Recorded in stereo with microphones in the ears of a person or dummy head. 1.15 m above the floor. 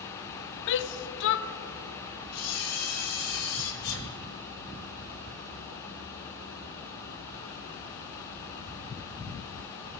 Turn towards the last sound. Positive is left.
turn(degrees=80)